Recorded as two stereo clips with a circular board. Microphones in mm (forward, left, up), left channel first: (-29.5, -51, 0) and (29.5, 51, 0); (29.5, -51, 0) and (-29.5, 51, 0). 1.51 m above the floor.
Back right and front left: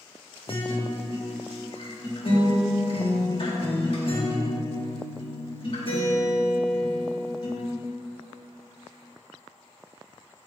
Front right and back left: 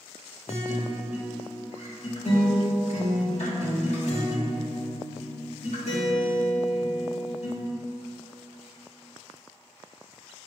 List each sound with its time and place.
0.5 s a guitar: 80° right, 1.7 m